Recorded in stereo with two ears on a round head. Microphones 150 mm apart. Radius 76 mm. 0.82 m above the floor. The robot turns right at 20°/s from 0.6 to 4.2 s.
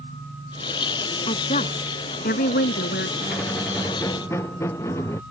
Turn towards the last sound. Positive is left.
turn(degrees=15)  # may be behind; listen again after turning